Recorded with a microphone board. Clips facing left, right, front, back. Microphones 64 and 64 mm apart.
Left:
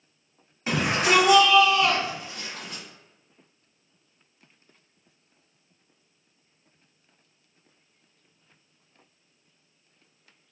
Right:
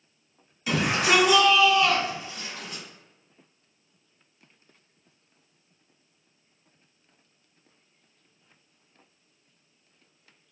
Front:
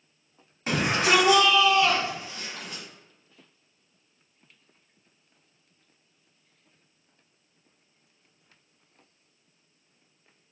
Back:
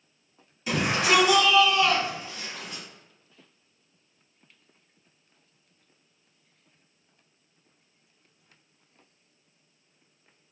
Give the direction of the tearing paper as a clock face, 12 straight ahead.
I don't hear tearing paper.